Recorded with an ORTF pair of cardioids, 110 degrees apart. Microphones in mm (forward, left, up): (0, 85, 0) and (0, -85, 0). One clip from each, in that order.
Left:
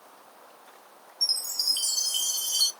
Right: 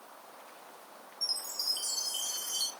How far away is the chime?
About 0.6 m.